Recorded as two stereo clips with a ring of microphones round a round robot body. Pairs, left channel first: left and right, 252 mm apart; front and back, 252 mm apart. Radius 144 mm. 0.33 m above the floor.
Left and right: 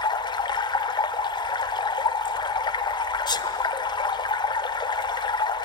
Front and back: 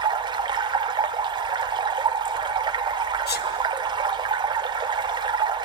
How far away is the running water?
About 1.1 m.